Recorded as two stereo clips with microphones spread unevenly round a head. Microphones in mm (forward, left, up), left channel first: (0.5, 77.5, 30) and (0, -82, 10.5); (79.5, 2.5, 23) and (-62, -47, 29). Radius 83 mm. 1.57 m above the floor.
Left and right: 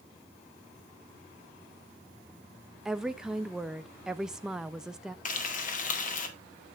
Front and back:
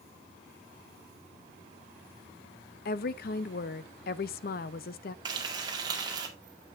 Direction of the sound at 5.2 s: 130° left.